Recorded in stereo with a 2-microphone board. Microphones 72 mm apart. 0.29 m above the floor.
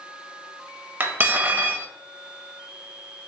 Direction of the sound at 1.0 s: 30° right (ahead or behind).